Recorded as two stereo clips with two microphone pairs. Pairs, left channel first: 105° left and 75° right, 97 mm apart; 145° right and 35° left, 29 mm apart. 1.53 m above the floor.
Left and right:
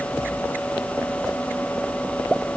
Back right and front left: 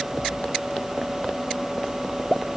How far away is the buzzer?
No buzzer in this recording.